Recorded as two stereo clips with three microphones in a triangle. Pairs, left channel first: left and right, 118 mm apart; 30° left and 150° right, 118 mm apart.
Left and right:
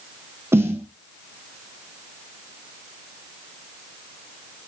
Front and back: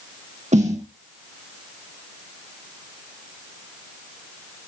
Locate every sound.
0.5 s a snare drum: 160° right, 4 m